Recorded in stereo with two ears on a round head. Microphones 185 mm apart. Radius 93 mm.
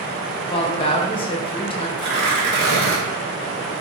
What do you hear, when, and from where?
0.5 s a woman speaking: 25° left (ahead or behind), 0.7 m
2.0 s tearing paper: 50° right (ahead or behind), 1.9 m